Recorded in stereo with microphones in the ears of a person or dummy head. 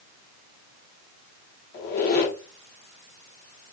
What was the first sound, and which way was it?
A squeak, 55° left (ahead or behind).